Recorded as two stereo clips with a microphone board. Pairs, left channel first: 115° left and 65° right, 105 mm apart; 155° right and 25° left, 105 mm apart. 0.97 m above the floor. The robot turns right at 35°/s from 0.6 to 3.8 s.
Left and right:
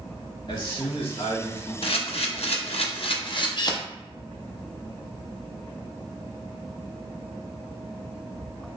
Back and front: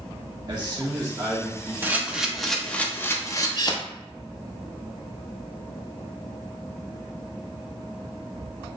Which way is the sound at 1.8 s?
95° left.